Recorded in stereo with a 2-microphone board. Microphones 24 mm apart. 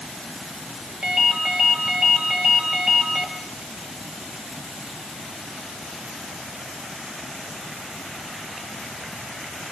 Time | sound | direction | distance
1.0 | a ringtone | 50° right (ahead or behind) | 4 m